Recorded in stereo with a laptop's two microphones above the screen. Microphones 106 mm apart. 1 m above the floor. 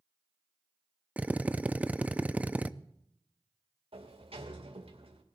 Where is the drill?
15° right (ahead or behind), 0.5 m.